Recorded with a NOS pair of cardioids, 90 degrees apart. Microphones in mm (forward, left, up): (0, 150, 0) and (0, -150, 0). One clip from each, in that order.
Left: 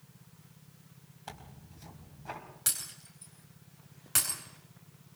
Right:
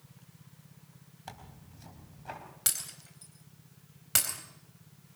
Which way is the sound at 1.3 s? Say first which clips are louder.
Even; straight ahead.